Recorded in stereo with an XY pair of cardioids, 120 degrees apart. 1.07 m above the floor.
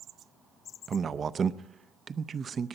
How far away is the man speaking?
About 0.6 m.